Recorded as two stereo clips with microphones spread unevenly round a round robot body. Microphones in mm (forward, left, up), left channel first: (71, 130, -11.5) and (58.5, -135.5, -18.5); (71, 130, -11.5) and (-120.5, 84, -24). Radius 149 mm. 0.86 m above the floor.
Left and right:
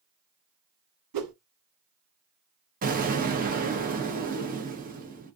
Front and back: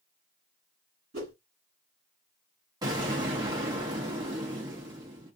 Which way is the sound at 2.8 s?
115° right.